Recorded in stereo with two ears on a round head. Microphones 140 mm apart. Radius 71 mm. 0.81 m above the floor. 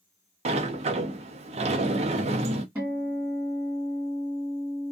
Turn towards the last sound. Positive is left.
turn(degrees=-10)  # may be behind; listen again after turning